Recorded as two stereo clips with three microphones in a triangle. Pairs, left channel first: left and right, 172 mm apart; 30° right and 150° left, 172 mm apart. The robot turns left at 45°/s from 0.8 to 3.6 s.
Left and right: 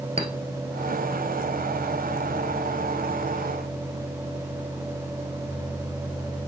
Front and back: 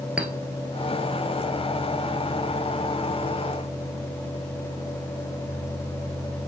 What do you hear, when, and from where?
0.2 s a clink: 130° right, 1.0 m